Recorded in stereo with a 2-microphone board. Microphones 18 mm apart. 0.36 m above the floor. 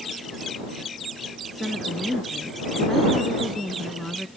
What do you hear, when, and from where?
1.5 s a woman speaking: 5° left (ahead or behind); by 4.3 s 20° left (ahead or behind)